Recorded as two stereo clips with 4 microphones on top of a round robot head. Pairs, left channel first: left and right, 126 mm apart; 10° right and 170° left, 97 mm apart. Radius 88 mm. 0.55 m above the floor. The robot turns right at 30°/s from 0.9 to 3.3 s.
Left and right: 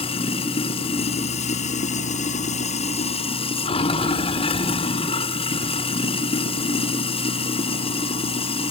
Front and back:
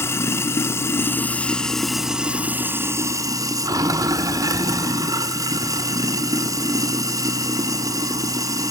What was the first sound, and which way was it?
Running water, 50° left.